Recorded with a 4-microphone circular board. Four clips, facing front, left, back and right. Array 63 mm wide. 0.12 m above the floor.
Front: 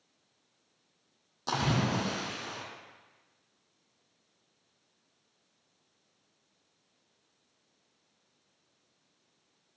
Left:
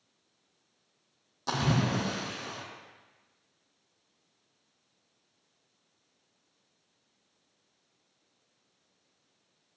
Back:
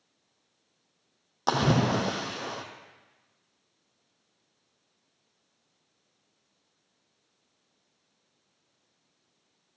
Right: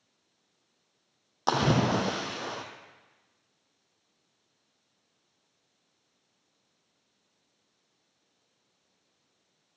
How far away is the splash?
About 2 m.